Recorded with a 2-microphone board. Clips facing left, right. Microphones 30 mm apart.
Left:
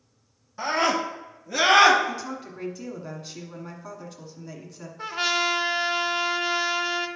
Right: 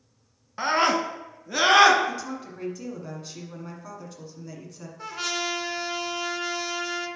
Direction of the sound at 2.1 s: 10° left (ahead or behind).